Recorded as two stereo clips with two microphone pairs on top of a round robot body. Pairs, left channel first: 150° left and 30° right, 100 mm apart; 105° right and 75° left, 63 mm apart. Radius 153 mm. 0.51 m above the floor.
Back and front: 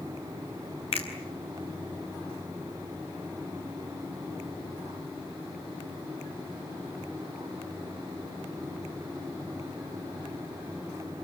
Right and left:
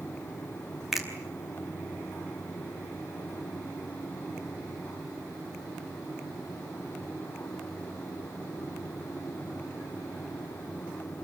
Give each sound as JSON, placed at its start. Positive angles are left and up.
{"t": 0.9, "sound": "a finger snap", "azimuth_deg": 160, "distance_m": 5.0}